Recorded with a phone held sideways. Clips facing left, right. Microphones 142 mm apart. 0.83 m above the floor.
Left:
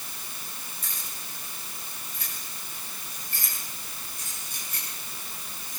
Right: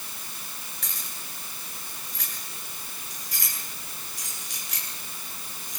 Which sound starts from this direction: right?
Keys jangling, at 0.8 s.